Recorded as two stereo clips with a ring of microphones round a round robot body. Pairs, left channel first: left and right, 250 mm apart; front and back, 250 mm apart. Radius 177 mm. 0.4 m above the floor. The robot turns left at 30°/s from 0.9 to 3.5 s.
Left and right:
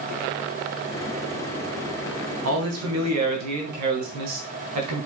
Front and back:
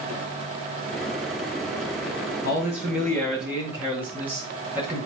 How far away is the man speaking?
About 3.5 m.